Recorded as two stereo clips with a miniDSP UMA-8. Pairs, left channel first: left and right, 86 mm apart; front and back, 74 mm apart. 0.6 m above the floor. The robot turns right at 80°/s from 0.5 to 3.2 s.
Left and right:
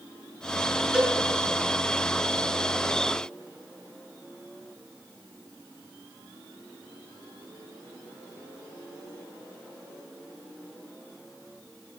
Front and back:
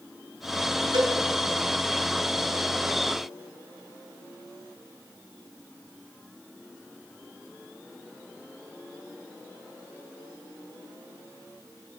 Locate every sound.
0.9 s a cowbell: 170° right, 2.5 m; by 1.2 s 150° right, 2.5 m